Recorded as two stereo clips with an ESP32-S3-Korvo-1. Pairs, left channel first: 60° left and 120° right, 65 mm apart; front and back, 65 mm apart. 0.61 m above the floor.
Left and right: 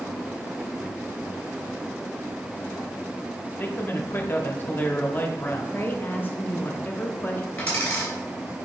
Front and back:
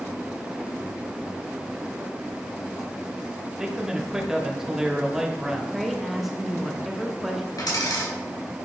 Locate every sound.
3.6 s a man speaking: 105° left, 1.0 m
5.7 s a woman speaking: 95° left, 1.0 m
7.6 s a dropped coin: 5° right, 3 m